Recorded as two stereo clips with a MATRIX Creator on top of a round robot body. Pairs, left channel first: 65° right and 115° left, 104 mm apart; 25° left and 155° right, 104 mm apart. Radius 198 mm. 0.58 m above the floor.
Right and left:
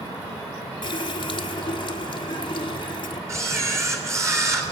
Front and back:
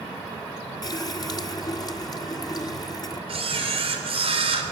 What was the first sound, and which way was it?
A running tap, 30° right.